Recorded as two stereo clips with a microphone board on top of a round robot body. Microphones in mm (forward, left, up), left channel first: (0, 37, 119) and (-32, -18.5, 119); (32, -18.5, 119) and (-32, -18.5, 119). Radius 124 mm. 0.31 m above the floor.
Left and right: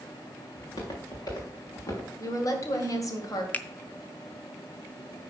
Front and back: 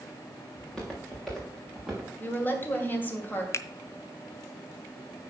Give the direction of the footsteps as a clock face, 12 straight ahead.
9 o'clock.